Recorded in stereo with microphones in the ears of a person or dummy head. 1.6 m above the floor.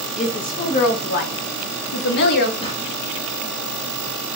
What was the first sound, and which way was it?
A woman speaking, 40° left (ahead or behind).